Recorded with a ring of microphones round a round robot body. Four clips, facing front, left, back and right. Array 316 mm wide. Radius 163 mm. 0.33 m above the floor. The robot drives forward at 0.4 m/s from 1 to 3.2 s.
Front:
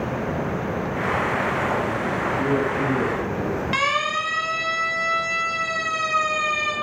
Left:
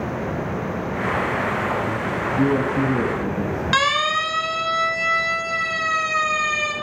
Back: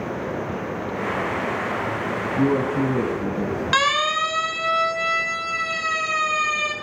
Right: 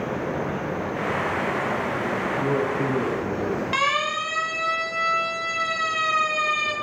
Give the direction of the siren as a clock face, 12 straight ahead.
8 o'clock.